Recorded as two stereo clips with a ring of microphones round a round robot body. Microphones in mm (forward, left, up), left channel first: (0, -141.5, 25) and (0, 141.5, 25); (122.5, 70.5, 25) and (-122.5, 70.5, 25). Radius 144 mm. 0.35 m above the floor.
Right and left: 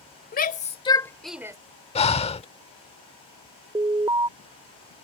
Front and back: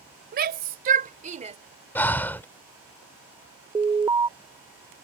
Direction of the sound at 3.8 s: 135° left.